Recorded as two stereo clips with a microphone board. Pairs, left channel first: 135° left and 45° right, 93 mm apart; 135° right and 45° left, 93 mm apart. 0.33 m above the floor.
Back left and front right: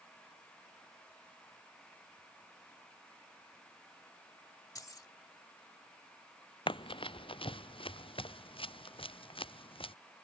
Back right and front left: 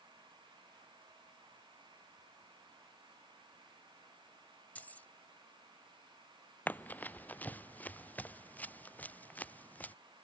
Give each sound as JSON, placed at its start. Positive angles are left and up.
{"t": 4.8, "sound": "keys jangling", "azimuth_deg": 160}
{"t": 6.7, "sound": "running footsteps", "azimuth_deg": 155}